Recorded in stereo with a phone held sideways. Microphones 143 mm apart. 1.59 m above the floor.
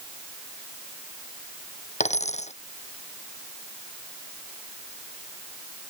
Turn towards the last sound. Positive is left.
turn(degrees=55)  # may be behind; listen again after turning